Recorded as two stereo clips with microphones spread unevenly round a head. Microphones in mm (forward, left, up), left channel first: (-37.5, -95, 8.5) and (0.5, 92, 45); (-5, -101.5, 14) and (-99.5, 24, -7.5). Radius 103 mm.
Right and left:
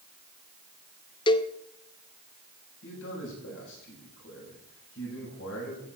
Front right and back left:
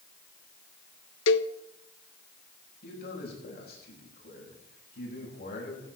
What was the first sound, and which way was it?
A cowbell, 35° right.